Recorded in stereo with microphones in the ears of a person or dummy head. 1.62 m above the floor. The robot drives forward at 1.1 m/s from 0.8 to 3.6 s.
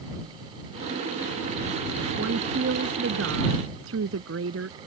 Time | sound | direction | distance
2.2 | a woman speaking | 85° right | ?